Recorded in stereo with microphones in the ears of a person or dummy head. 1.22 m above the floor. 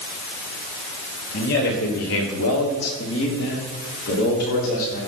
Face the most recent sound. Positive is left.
turn(degrees=50)  # may be behind; listen again after turning